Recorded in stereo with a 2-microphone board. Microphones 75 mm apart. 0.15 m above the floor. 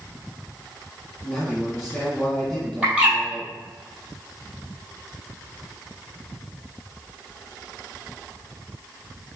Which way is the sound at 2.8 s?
15° right (ahead or behind).